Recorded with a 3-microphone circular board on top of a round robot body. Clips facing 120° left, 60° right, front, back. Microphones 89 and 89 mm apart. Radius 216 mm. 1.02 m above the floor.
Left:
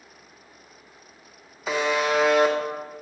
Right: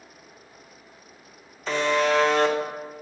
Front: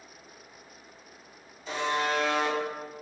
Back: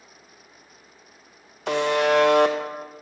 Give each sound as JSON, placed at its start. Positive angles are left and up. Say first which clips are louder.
{"t": 1.7, "sound": "a buzzer", "louder": "right 1 dB, back 8 dB", "azimuth_deg": -160, "distance_m": 1.0}